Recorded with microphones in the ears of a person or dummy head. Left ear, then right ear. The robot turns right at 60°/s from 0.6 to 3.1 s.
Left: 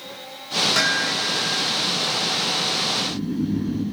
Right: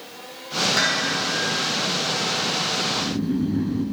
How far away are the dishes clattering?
About 4.5 m.